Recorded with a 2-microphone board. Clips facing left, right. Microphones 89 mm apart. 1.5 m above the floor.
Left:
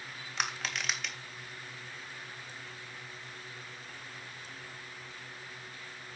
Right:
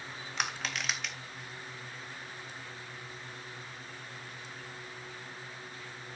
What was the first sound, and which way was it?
Crushing, centre (ahead or behind).